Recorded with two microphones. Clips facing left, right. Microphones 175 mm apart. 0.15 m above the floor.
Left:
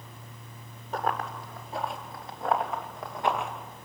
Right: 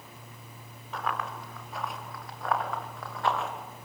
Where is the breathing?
I don't hear breathing.